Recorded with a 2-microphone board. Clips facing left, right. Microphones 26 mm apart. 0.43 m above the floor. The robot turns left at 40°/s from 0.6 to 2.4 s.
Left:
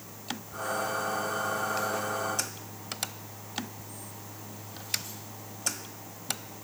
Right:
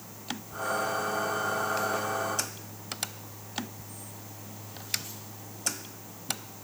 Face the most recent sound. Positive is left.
No sound to turn to.